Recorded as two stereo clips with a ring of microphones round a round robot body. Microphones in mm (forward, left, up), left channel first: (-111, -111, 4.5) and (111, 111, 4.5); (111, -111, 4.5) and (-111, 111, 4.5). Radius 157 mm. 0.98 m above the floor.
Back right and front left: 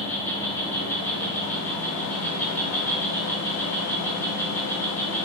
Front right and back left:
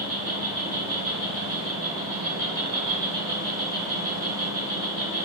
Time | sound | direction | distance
0.0 | an insect | 150° left | 1.6 m